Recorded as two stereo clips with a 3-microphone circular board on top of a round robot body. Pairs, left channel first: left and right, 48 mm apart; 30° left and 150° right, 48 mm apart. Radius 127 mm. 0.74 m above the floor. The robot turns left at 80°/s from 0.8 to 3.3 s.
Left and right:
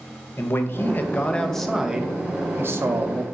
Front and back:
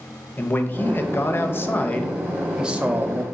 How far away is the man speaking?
About 0.7 m.